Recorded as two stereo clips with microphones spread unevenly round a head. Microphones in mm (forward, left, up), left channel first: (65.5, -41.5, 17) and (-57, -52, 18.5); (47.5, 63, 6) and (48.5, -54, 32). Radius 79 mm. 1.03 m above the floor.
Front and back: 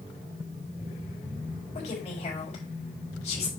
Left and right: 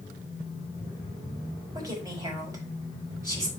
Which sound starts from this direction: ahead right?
A woman speaking, at 1.8 s.